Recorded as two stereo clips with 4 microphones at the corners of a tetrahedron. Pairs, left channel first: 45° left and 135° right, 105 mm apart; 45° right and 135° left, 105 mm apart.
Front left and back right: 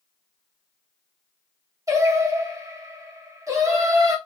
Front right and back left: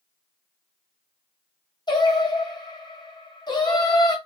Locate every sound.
1.9 s singing: 80° right, 1.3 m